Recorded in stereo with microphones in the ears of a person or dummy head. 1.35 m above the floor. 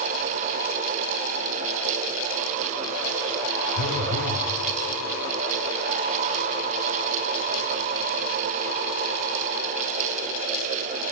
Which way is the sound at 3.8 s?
60° left (ahead or behind).